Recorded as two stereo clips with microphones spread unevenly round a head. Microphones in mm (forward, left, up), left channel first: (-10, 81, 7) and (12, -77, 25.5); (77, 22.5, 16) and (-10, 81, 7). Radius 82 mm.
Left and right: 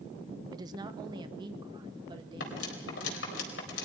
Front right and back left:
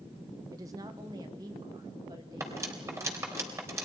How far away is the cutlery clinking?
About 4 m.